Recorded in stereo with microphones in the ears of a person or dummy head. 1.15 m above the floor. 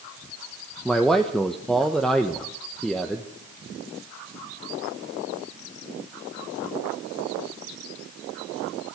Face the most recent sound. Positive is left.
turn(degrees=0)  # may be behind; listen again after turning